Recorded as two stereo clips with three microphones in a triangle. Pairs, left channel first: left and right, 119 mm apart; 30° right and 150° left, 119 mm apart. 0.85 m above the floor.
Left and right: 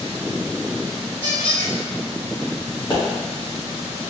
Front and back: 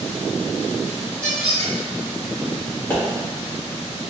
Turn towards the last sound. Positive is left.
turn(degrees=40)